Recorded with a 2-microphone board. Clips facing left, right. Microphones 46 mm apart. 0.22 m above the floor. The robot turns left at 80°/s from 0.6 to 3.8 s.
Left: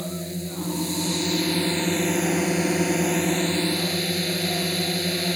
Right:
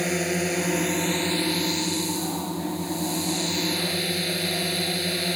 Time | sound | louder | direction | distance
0.0 | a drone | right 7 dB | 105° right | ?